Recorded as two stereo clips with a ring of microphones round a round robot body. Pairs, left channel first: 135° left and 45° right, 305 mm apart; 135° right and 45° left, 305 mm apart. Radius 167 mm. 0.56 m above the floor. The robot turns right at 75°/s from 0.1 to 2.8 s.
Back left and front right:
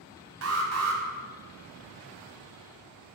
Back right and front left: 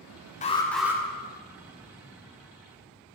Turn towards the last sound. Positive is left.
turn(degrees=105)